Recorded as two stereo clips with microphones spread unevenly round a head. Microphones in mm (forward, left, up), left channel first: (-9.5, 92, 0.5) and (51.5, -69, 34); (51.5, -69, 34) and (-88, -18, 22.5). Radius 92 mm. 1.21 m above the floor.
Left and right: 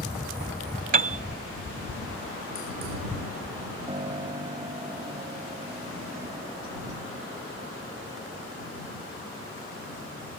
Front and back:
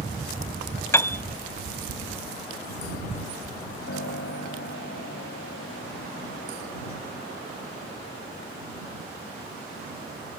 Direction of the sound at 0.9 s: 85° right.